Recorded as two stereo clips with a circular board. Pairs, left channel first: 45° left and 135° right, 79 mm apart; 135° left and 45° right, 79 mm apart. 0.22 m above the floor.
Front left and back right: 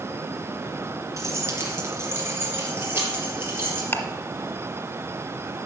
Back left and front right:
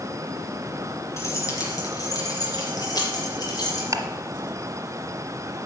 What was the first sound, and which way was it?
Keys jangling, straight behind.